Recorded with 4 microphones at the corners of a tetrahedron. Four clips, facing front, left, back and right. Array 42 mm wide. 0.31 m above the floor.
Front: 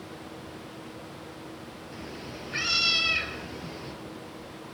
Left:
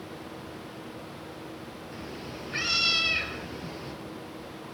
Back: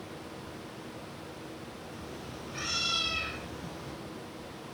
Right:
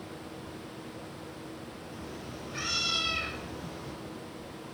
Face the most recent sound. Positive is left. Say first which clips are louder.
# left 3 dB, front 5 dB
turn(degrees=45)